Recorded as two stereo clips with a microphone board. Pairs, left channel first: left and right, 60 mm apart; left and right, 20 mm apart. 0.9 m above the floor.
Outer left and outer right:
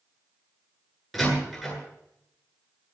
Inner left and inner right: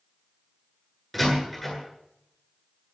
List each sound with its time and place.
1.1 s a door slam: centre (ahead or behind), 9 m